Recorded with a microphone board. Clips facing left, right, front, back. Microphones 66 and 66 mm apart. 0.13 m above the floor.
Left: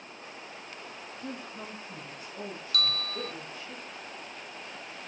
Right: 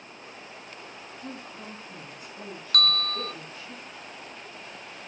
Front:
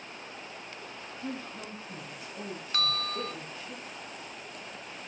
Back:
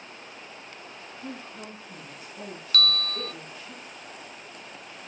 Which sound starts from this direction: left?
A woman speaking, at 1.2 s.